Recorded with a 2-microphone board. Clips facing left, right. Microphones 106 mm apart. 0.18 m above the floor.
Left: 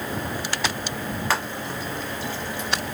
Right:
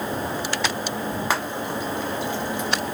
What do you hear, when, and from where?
1.3 s frying: 15° right (ahead or behind), 1.0 m